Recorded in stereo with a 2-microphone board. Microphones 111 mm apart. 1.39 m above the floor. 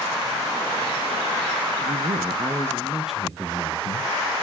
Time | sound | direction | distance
1.8 | a man speaking | 85° right | 0.8 m